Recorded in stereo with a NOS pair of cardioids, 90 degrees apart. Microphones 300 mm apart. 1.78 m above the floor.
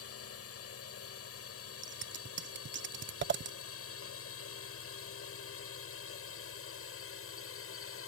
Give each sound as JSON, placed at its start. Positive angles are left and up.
{"t": 0.0, "sound": "a drone", "azimuth_deg": 50}
{"t": 1.8, "sound": "scissors", "azimuth_deg": -40}